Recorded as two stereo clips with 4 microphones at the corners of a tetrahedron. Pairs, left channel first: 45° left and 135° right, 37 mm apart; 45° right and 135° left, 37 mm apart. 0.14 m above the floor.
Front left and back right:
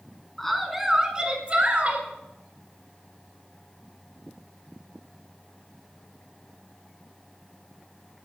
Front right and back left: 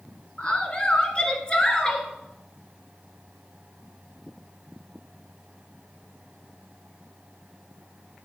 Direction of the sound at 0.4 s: 25° right.